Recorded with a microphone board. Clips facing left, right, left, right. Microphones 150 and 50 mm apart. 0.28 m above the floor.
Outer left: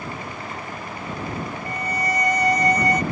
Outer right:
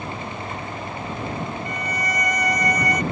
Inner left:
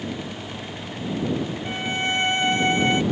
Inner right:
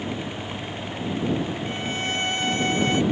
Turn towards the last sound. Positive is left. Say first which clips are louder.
# outer left 2 dB, inner left 2 dB
turn(degrees=25)  # may be behind; listen again after turning